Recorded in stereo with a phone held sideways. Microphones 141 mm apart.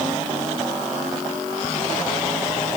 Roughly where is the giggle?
I don't hear a giggle.